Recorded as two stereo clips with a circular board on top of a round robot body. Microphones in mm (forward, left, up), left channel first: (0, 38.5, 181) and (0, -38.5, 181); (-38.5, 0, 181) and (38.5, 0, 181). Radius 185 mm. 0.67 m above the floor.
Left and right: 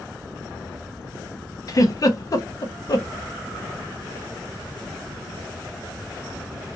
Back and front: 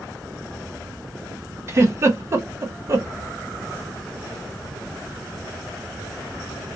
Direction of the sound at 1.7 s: 50° left.